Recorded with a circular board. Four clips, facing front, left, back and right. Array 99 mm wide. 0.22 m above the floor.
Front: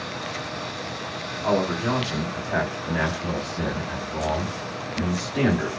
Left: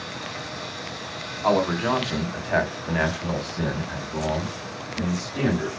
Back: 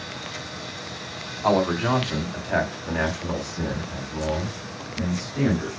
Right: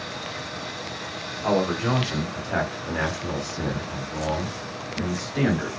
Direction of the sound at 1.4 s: 145° left.